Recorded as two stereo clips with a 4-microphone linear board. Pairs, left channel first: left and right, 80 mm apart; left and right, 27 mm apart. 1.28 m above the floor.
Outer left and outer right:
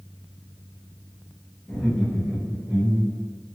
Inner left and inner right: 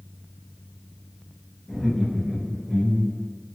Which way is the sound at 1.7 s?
5° left (ahead or behind).